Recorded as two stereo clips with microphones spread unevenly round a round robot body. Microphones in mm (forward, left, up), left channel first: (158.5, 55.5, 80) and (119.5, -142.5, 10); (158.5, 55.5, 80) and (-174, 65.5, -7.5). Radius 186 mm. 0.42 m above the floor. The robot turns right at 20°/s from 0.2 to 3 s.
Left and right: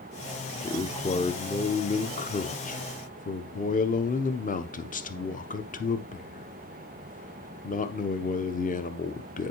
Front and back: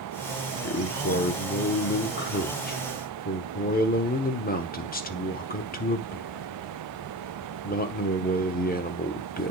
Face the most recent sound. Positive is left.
turn(degrees=55)